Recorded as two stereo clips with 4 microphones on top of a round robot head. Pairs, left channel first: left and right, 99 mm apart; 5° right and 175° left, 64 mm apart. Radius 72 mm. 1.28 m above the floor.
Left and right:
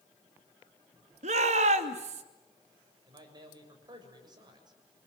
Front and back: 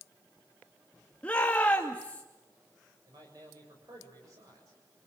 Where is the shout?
80° right, 2.5 m.